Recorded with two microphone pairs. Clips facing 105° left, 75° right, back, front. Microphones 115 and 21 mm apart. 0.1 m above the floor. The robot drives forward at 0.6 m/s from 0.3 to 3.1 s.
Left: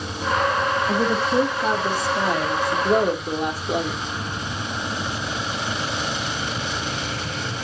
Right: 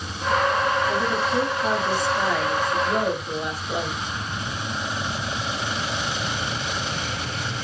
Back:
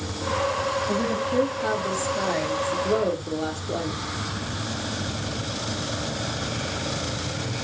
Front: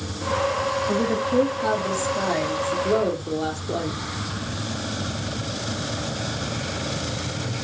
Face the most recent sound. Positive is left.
turn(degrees=85)